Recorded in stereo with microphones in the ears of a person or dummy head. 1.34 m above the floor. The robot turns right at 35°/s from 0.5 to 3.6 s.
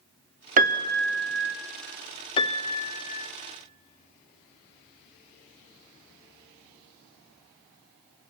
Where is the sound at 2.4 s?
40° left, 0.6 m; by 3.3 s 75° left, 0.6 m.